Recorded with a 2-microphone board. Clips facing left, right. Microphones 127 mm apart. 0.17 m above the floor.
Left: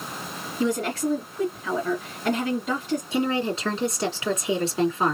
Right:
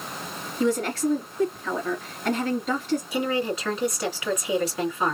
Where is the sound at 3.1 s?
25° left (ahead or behind), 2.5 m.